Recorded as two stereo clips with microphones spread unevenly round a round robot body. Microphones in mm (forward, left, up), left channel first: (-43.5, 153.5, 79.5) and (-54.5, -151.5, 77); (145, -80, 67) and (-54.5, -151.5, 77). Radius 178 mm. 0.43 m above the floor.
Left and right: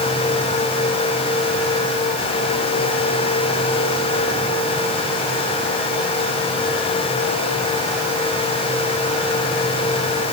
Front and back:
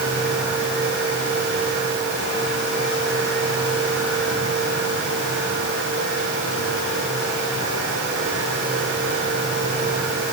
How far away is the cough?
No cough in this recording.